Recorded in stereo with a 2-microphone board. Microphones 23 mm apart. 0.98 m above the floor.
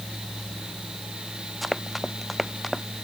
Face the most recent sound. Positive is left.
turn(degrees=5)  # may be behind; listen again after turning